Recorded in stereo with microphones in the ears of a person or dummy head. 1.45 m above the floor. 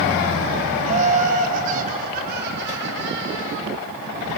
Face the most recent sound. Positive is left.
turn(degrees=-75)  # may be behind; listen again after turning